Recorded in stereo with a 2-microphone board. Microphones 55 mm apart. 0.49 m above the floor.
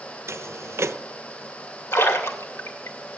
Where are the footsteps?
55° right (ahead or behind), 0.7 m.